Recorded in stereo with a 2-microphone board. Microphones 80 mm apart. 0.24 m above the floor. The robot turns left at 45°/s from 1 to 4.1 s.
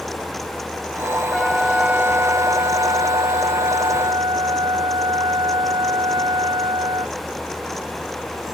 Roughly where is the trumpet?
Ahead.